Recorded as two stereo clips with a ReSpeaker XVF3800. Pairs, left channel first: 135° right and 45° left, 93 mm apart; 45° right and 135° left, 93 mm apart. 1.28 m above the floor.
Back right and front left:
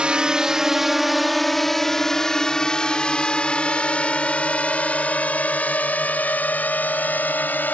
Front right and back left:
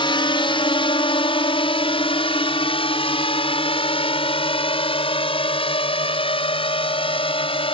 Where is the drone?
35° right; by 7.8 s 65° right.